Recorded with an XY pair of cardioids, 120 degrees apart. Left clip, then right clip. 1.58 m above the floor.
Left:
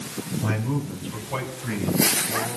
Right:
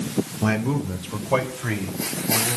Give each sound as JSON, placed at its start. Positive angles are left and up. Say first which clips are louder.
{"t": 0.4, "sound": "a man speaking", "louder": "right 4 dB", "azimuth_deg": -55, "distance_m": 1.8}